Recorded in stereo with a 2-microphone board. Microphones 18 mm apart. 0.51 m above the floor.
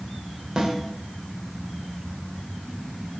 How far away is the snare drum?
About 2 m.